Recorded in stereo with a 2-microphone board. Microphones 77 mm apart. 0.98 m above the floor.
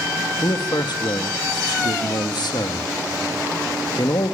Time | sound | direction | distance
0.4 | a man speaking | 70° left (ahead or behind) | 1.5 m